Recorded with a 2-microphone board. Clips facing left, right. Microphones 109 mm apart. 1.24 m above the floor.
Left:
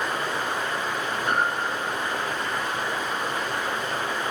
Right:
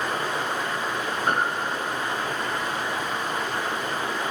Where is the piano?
45° right (ahead or behind), 0.7 m.